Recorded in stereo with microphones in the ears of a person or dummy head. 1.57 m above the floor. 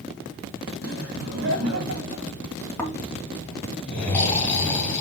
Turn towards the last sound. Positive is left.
turn(degrees=10)  # may be behind; listen again after turning